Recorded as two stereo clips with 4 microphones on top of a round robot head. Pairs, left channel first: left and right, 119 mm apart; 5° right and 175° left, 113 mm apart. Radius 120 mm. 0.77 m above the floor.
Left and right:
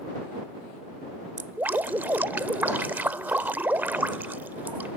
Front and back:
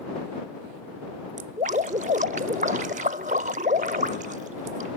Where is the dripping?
160° right.